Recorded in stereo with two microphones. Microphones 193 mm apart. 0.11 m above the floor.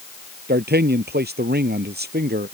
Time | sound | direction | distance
0.5 | a man speaking | 60° right (ahead or behind) | ?